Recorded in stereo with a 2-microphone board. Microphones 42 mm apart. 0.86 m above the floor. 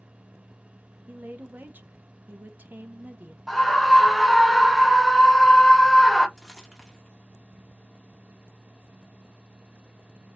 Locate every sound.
1.1 s a woman speaking: 50° right (ahead or behind), 0.7 m
3.5 s a scream: 5° left (ahead or behind), 0.8 m
6.4 s crumpling: 10° left (ahead or behind), 1.4 m